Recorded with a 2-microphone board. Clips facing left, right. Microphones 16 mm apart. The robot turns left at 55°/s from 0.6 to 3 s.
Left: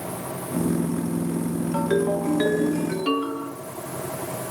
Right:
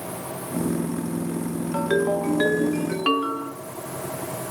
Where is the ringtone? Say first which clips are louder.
Right 1 dB; 15° right, 0.9 m; by 3.5 s 80° right, 0.9 m.